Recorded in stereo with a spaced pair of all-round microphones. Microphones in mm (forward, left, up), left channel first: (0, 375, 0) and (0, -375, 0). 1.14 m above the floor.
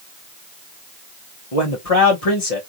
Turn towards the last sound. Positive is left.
turn(degrees=50)  # may be behind; listen again after turning